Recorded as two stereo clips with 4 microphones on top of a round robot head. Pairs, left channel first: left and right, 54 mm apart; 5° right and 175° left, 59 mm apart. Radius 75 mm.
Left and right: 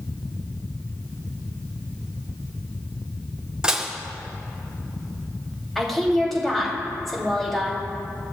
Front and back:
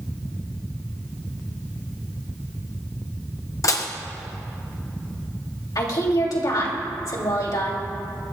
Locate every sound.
3.6 s dishes clattering: 15° right, 1.1 m
5.8 s a woman speaking: 5° left, 3 m